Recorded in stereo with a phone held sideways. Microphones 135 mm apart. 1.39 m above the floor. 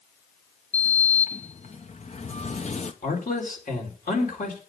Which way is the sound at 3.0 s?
85° left.